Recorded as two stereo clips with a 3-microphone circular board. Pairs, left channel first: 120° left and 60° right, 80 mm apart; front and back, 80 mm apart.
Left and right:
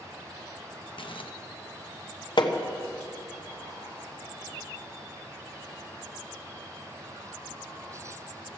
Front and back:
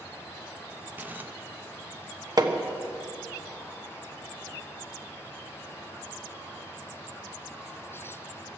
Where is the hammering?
140° left, 1.0 m.